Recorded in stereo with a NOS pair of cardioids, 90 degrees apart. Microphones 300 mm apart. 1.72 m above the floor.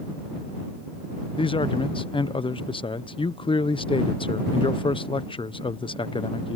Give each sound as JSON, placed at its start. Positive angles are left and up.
{"t": 1.4, "sound": "a man speaking", "azimuth_deg": 15}